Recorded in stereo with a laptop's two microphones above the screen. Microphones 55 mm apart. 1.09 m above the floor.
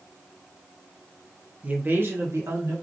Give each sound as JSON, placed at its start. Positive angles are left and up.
{"t": 1.6, "sound": "a man speaking", "side_deg": -25, "distance_m": 0.7}